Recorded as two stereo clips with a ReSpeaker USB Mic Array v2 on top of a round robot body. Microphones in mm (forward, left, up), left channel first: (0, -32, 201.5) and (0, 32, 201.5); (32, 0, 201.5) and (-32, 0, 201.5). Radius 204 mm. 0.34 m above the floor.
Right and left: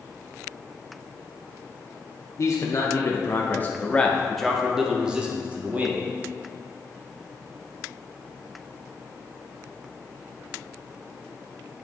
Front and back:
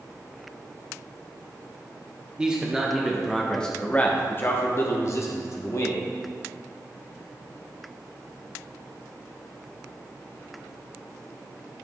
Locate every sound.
2.4 s a man speaking: 110° right, 1.3 m; by 6.1 s 30° left, 1.5 m